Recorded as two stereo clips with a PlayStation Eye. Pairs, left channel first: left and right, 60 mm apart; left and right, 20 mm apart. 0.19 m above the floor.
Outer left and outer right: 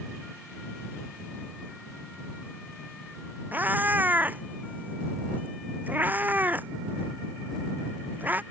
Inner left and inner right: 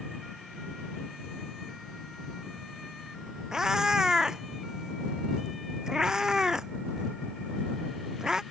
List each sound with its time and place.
3.5 s a cat meowing: 30° right (ahead or behind)